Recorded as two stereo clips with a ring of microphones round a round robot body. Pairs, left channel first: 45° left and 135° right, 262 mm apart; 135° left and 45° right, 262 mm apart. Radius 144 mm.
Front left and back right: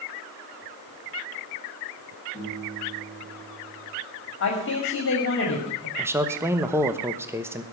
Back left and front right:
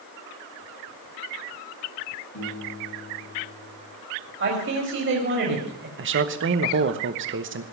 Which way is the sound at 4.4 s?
Straight ahead.